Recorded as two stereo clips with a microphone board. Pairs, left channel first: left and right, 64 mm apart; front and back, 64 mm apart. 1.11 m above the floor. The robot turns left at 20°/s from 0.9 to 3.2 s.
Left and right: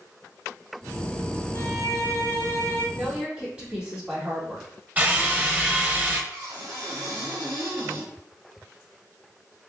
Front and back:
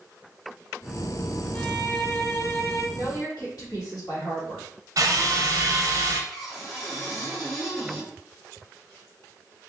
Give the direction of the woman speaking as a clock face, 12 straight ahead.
12 o'clock.